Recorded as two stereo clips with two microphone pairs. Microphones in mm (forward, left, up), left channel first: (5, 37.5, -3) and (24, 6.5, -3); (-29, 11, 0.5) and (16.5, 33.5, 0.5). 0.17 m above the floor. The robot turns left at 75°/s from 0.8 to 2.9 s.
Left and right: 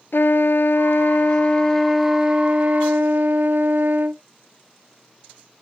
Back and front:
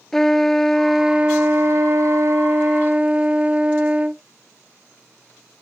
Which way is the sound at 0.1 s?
120° left.